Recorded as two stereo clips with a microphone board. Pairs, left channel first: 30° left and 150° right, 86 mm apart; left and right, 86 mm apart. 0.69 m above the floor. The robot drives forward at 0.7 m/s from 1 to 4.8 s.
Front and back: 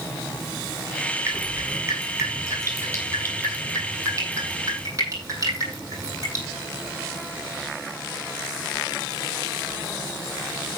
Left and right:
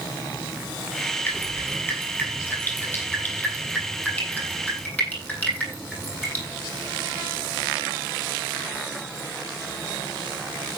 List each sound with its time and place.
1.3 s dripping: 155° left, 6.5 m; by 6.4 s 160° left, 9 m